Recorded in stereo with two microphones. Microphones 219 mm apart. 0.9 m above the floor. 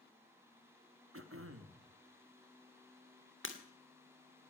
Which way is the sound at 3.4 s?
60° left (ahead or behind).